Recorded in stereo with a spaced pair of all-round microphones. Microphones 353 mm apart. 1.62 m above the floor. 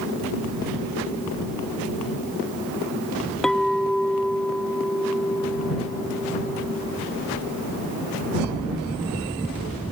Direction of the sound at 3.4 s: Centre (ahead or behind).